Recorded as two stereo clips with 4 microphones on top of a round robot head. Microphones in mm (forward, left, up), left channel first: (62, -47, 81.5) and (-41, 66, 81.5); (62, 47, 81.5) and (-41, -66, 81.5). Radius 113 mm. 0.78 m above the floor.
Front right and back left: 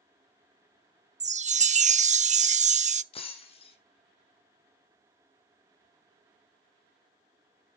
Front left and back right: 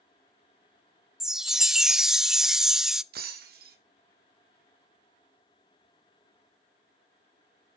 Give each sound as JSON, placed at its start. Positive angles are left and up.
{"t": 1.2, "sound": "a chime", "azimuth_deg": 140, "distance_m": 0.8}
{"t": 3.1, "sound": "breaking glass", "azimuth_deg": -105, "distance_m": 2.5}